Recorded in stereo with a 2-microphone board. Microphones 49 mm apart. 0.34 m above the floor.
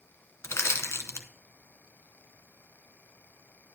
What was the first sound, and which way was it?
Crushing, 80° left.